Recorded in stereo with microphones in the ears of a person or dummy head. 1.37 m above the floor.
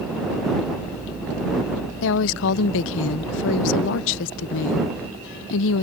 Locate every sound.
2.0 s a woman speaking: 70° left (ahead or behind)